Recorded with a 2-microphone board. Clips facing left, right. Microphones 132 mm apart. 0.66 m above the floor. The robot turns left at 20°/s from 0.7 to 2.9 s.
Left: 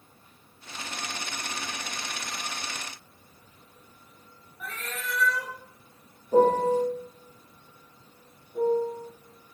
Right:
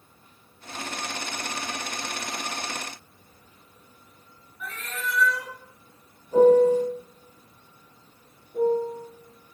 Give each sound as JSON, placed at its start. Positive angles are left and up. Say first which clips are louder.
{"t": 4.6, "sound": "a cat meowing", "louder": "right 3 dB", "side_deg": 40, "distance_m": 1.6}
{"t": 6.3, "sound": "a piano", "louder": "right 5 dB", "side_deg": 35, "distance_m": 0.9}
{"t": 8.5, "sound": "a piano", "louder": "right 2 dB", "side_deg": -20, "distance_m": 1.2}